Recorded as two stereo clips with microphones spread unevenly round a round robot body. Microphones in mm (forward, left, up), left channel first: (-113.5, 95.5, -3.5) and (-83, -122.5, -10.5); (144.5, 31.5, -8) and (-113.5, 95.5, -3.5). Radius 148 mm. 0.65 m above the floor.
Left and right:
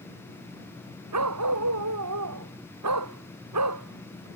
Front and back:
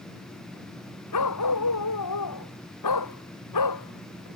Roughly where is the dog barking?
Ahead right.